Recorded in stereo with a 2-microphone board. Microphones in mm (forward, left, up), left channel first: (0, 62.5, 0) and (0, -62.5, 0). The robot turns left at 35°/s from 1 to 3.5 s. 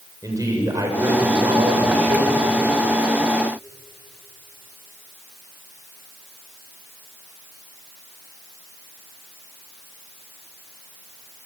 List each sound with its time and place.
0.2 s a man speaking: 30° right, 6.5 m; by 2.5 s 80° right, 6.5 m